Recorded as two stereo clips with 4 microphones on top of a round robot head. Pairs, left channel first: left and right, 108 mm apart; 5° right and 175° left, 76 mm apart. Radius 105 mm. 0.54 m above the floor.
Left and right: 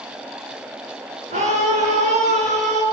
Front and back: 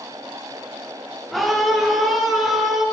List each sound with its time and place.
1.3 s a scream: 95° right, 9.5 m; by 2.8 s 100° right, 9 m